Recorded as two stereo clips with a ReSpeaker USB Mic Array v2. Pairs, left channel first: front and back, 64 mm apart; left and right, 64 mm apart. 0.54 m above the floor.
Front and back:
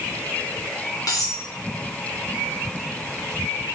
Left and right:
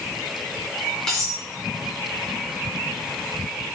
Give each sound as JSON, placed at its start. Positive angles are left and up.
{"t": 1.1, "sound": "cutlery clinking", "azimuth_deg": 10, "distance_m": 3.5}